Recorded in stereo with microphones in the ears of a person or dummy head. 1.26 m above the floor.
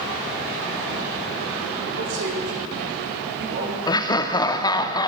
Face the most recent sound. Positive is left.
turn(degrees=20)  # may be behind; listen again after turning